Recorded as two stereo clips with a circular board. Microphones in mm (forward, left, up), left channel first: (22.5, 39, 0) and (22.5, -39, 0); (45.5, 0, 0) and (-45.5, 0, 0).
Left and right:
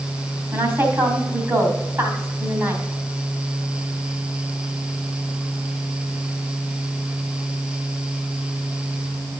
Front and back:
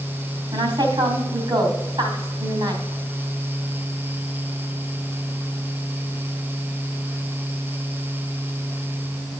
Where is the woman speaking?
140° right, 2.5 m.